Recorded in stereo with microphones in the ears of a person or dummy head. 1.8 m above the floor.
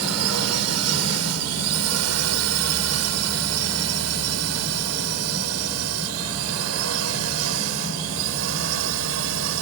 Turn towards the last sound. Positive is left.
turn(degrees=-75)  # may be behind; listen again after turning